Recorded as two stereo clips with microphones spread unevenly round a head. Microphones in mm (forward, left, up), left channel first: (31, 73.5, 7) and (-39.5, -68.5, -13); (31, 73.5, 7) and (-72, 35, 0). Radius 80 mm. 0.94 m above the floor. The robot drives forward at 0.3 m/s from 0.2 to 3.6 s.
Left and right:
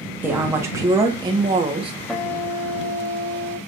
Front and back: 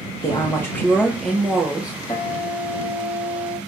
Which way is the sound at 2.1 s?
20° right.